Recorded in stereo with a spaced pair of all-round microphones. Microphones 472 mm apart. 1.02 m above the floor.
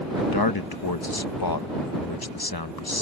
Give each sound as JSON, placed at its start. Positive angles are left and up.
{"t": 0.2, "sound": "a man speaking", "side_deg": 50}